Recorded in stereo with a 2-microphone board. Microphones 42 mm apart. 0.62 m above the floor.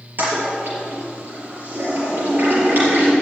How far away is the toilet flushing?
About 4 m.